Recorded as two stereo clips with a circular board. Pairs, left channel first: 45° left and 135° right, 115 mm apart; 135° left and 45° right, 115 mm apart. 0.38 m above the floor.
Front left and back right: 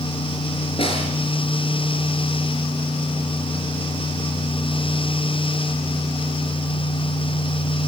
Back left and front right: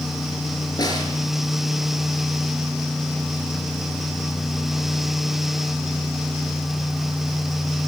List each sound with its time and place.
0.8 s a snare drum: 80° left, 6.5 m